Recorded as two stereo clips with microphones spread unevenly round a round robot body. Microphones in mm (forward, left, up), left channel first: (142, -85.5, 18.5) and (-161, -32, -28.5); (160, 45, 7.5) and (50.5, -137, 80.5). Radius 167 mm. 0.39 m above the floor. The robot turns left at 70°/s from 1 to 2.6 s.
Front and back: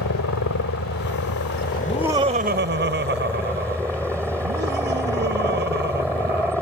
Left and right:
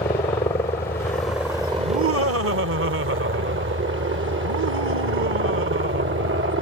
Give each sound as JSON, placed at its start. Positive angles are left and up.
{"t": 0.0, "sound": "a helicopter", "azimuth_deg": 10}
{"t": 1.8, "sound": "laughter", "azimuth_deg": -100}